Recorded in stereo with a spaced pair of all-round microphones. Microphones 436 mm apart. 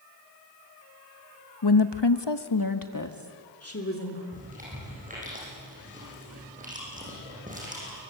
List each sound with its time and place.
1.6 s a woman speaking: 55° left (ahead or behind), 1.2 m; by 4.2 s 30° left (ahead or behind), 3.5 m
4.3 s chewing: 20° right (ahead or behind), 8.5 m